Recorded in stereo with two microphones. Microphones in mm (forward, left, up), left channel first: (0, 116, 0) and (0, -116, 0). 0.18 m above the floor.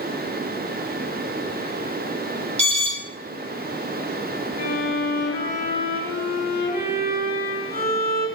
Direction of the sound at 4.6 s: 40° left (ahead or behind).